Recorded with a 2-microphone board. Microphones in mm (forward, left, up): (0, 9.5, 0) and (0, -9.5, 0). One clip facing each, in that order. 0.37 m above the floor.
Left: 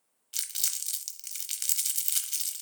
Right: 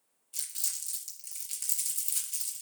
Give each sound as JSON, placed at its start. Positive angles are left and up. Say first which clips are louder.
{"t": 0.3, "sound": "crumpling", "louder": "left 5 dB", "side_deg": 70, "distance_m": 0.7}